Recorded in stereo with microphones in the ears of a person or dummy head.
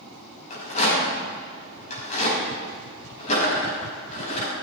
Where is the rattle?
50° left (ahead or behind), 5 m.